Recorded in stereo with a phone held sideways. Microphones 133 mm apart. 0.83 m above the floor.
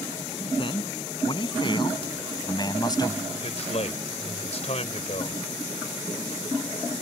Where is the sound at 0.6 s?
40° left (ahead or behind); by 3.2 s 30° left (ahead or behind).